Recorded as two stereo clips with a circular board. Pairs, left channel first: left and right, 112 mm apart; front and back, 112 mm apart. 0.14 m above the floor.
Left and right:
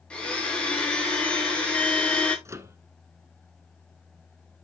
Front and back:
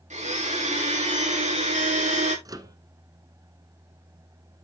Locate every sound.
0.1 s a blender: 170° left, 6.5 m
2.5 s a microwave: 140° right, 1.2 m